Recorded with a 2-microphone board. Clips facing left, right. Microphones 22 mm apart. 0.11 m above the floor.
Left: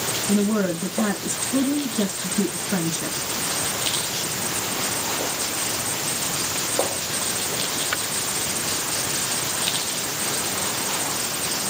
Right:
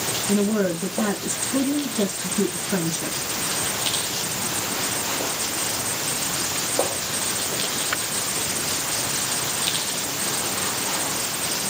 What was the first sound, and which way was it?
A woman speaking, 15° left (ahead or behind).